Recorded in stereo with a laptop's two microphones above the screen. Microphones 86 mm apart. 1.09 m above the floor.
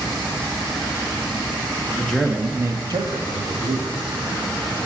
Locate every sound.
2.0 s a man speaking: 10° left (ahead or behind), 1.0 m; by 3.9 s 80° right, 2.0 m